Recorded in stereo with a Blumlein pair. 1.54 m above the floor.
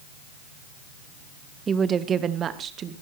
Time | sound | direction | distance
1.7 | a woman speaking | 20° right | 0.9 m